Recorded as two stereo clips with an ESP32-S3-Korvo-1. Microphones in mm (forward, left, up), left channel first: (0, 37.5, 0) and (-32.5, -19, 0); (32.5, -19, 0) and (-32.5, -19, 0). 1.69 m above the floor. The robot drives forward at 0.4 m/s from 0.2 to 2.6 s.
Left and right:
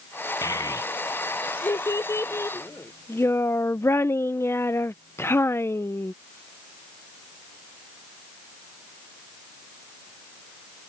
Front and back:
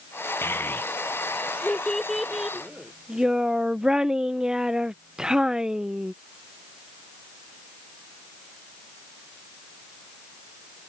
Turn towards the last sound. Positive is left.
turn(degrees=100)